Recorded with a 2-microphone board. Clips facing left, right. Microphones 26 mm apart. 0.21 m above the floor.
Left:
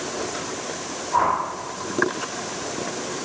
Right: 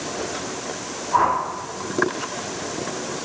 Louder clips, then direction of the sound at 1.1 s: Right 2 dB; 15° right (ahead or behind).